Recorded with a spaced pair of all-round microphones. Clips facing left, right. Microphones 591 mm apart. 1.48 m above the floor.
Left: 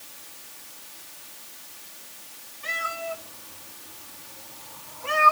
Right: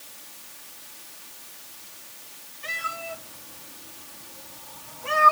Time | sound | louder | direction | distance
2.6 | a cat meowing | left 4 dB | 55° right (ahead or behind) | 7 m